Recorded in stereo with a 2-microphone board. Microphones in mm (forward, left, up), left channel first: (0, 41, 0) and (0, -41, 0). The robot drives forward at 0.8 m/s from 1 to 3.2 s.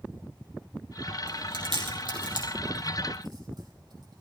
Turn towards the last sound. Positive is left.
turn(degrees=-60)  # may be behind; listen again after turning